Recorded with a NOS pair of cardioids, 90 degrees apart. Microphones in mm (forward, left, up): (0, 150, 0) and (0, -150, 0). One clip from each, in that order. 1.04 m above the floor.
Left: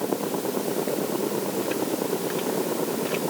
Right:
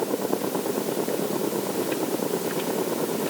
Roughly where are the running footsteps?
I don't hear running footsteps.